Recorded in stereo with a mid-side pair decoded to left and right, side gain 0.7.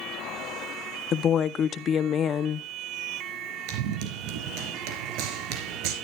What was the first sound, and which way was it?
A woman speaking, 40° left.